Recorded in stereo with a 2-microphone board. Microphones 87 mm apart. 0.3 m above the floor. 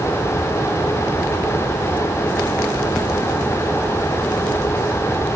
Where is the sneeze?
No sneeze in this recording.